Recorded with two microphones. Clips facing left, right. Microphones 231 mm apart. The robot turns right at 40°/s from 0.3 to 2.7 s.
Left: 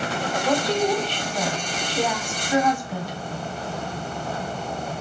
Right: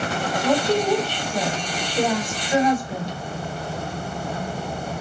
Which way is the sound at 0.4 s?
Centre (ahead or behind).